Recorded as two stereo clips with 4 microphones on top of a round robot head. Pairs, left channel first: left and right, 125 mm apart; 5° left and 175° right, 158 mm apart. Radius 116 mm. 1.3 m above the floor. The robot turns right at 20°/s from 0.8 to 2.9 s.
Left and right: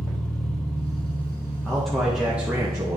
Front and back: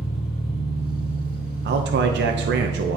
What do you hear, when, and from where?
0.0 s an engine running: 5° left, 3 m; by 3.0 s 50° left, 3 m
1.6 s a man speaking: 175° left, 0.5 m; by 3.0 s 160° right, 0.5 m